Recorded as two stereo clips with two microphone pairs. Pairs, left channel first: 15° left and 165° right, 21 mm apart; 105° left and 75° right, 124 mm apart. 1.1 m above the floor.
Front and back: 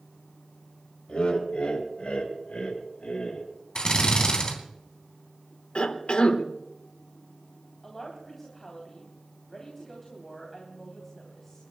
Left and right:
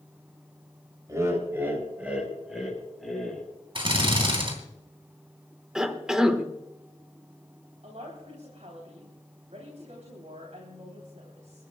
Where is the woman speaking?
55° right, 3 m.